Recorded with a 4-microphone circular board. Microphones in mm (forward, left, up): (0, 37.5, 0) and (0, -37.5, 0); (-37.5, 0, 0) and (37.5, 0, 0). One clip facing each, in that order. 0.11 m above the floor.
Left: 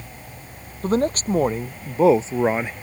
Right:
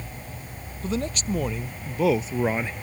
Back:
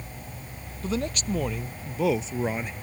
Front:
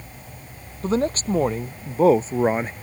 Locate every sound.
0.8 s a man speaking: 50° left; by 2.7 s 25° left